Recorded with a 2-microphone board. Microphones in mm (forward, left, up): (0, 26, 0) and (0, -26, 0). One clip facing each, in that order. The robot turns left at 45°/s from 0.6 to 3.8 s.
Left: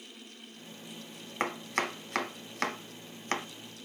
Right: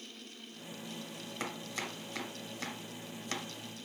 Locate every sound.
1.4 s chopping: 45° left (ahead or behind), 0.8 m; by 3.5 s 35° left (ahead or behind), 0.8 m